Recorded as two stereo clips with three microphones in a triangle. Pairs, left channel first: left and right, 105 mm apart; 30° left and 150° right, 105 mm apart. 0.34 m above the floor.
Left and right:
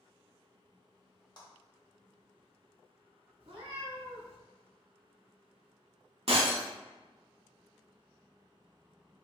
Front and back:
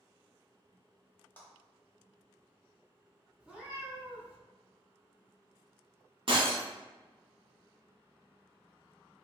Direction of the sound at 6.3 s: 115° right.